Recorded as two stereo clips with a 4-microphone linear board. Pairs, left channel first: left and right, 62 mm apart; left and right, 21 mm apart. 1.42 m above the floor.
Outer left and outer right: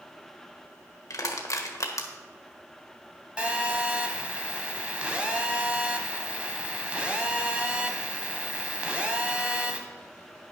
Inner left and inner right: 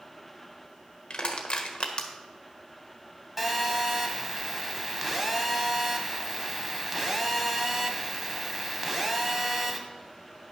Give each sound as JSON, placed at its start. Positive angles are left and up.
{"t": 1.1, "sound": "crushing", "side_deg": 55, "distance_m": 1.3}
{"t": 3.4, "sound": "a phone buzzing", "side_deg": -20, "distance_m": 1.3}